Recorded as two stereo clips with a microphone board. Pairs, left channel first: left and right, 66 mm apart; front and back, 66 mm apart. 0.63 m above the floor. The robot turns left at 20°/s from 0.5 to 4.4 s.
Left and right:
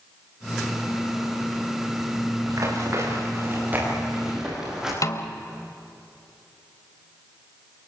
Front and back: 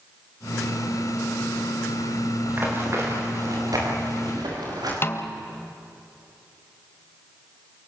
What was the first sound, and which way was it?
Running footsteps, 120° right.